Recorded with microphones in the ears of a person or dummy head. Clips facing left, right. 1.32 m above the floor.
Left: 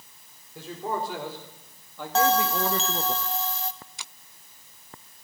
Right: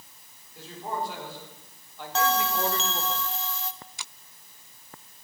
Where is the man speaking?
70° left (ahead or behind), 4.5 m; by 3.1 s 65° left (ahead or behind), 1.2 m.